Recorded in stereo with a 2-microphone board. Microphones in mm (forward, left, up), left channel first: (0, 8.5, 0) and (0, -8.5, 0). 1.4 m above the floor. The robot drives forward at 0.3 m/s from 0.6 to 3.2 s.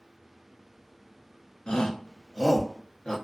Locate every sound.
1.7 s a shout: 80° left, 0.7 m; by 3.2 s 50° left (ahead or behind), 0.8 m